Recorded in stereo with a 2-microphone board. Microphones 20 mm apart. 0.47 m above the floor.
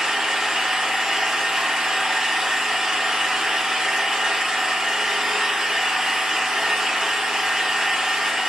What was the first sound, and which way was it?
An engine running, 40° right (ahead or behind).